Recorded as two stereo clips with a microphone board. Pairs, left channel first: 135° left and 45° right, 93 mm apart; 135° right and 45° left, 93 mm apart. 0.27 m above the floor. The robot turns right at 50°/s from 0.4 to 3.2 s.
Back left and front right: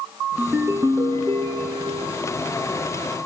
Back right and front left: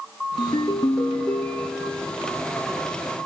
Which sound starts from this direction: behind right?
A ringtone, at 0.4 s.